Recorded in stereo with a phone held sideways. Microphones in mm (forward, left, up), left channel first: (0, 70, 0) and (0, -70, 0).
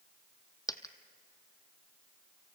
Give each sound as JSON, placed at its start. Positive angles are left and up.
{"t": 0.7, "sound": "a dropped coin", "side_deg": 25, "distance_m": 1.0}